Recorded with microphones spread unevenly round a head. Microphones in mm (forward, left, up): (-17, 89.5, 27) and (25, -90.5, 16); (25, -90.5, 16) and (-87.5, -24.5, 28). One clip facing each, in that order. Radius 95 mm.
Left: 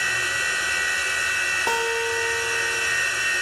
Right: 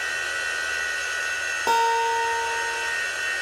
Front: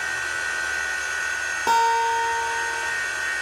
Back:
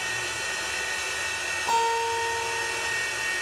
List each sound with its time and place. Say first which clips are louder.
0.0 s a machine running: left 2 dB, front 3 dB; 75° left, 3.5 m
1.7 s a guitar: right 2 dB, front 5 dB; 10° left, 3.5 m